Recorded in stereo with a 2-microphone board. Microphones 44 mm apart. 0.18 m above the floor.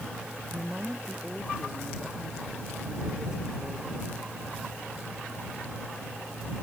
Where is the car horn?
I don't hear a car horn.